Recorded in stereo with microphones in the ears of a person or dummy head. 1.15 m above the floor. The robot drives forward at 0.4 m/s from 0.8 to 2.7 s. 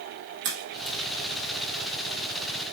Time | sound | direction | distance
0.4 | a crack | 70° right (ahead or behind) | 2.0 m